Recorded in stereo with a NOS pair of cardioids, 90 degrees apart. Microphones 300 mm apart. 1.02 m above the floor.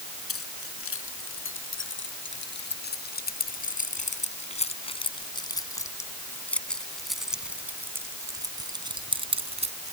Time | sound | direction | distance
0.3 | keys jangling | 45° left | ?